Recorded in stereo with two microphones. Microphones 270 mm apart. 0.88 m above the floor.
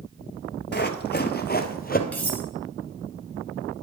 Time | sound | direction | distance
0.7 | running footsteps | 40° left (ahead or behind) | 1.1 m
2.1 | cutlery clinking | 5° left (ahead or behind) | 2.5 m